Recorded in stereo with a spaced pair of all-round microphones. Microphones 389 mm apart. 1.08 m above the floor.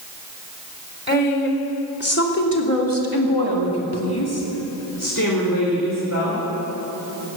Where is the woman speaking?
25° left (ahead or behind), 3.5 m; by 6.4 s 35° left (ahead or behind), 4 m.